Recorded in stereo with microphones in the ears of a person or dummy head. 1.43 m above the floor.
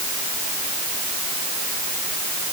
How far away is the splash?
I don't hear a splash.